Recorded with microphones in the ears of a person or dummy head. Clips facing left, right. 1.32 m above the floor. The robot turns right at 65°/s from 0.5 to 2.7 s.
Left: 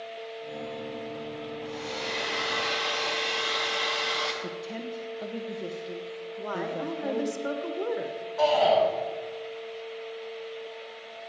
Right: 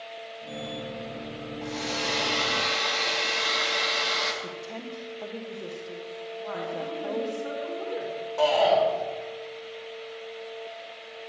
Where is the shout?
55° right (ahead or behind), 5.5 m.